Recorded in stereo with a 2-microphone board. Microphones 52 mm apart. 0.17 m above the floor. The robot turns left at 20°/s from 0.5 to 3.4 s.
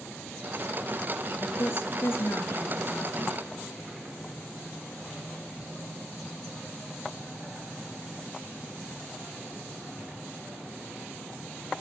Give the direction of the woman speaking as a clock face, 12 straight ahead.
9 o'clock.